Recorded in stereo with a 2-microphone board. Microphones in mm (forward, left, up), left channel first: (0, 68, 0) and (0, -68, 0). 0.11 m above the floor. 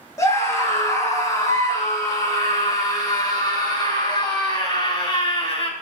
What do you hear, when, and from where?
0.2 s a scream: 25° left (ahead or behind), 7.5 m; by 5.7 s 40° left (ahead or behind), 5 m